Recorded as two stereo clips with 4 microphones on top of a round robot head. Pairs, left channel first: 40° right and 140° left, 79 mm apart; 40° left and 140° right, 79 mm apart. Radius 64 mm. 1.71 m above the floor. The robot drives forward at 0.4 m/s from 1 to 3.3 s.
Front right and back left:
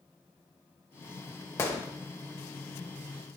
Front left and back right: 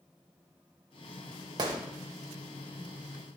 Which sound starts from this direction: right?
A gunshot, at 1.6 s.